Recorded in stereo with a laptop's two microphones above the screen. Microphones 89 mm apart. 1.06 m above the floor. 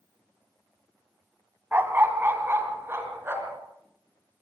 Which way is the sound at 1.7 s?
25° right (ahead or behind).